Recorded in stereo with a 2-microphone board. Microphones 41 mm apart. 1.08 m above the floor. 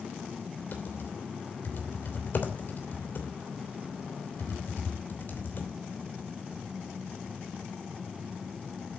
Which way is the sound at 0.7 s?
55° left (ahead or behind).